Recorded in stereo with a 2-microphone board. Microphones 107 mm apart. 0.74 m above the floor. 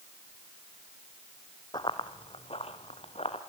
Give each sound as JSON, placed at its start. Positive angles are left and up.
{"t": 1.7, "sound": "running footsteps", "side_deg": 50, "distance_m": 1.8}